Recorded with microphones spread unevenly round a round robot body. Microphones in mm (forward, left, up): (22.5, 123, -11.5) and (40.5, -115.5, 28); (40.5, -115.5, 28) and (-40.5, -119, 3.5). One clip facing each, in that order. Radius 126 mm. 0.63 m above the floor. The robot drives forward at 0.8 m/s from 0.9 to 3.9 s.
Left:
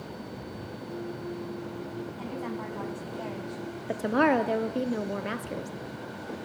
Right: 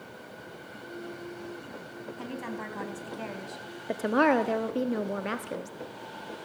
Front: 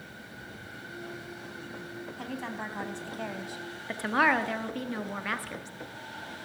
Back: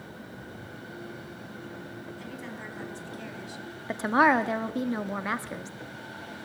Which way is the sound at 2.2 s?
25° right.